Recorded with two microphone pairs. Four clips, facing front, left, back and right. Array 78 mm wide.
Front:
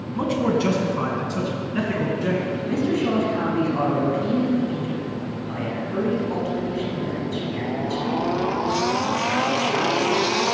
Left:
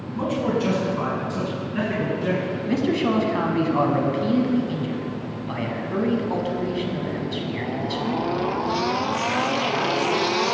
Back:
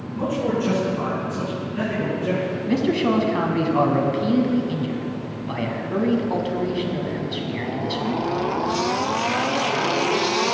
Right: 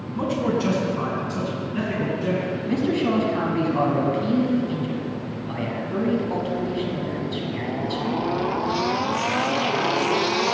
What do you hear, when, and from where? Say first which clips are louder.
0.1 s a man speaking: even, front 1 dB; 10° right, 1.7 m; by 2.4 s 35° left, 2.5 m
2.7 s a man speaking: left 1 dB, back 3 dB; 145° left, 1.1 m